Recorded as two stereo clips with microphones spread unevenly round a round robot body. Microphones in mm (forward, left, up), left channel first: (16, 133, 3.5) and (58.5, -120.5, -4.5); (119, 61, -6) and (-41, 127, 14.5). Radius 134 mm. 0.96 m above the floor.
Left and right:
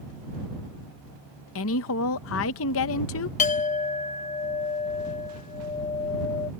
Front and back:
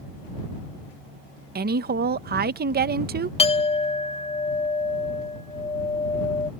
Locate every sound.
1.6 s a woman speaking: 130° left
3.4 s a clink: 35° left